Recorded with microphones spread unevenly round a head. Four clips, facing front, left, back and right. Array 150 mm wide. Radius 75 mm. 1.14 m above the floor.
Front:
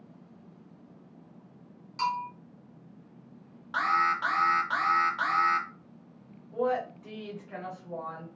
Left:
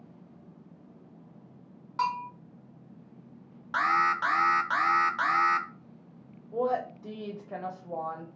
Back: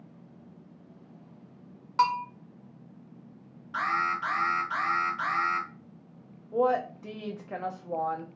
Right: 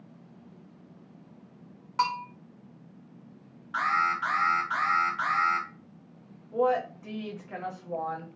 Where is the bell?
150° right, 0.8 m.